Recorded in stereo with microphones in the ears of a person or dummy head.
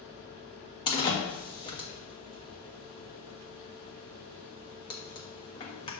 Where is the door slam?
25° left (ahead or behind), 1.3 m.